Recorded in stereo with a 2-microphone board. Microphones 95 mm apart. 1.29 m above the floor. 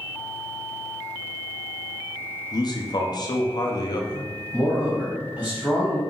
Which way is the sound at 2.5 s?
45° left (ahead or behind).